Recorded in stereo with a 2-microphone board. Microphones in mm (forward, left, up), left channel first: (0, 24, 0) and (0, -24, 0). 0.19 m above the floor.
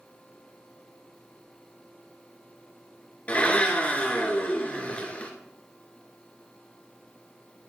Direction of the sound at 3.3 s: 30° left (ahead or behind).